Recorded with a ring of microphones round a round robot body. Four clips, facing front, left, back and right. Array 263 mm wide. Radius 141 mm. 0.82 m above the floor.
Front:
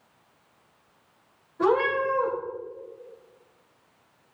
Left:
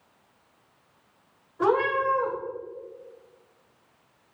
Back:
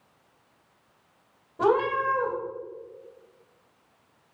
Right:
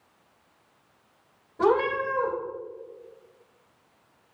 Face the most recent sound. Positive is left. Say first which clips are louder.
# even, even
turn(degrees=-150)